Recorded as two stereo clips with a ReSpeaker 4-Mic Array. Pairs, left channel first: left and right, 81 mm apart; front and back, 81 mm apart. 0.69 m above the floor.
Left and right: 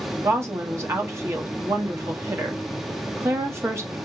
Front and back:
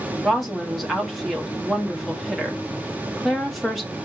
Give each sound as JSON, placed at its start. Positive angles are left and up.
{"t": 0.2, "sound": "a woman speaking", "azimuth_deg": -90, "distance_m": 0.9}